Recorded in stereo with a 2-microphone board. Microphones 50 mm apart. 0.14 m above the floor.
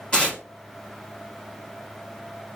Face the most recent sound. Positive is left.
turn(degrees=20)  # may be behind; listen again after turning